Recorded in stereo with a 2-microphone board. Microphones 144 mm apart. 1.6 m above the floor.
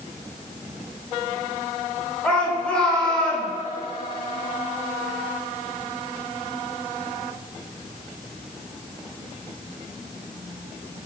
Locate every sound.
2.2 s a shout: 5° left (ahead or behind), 7.5 m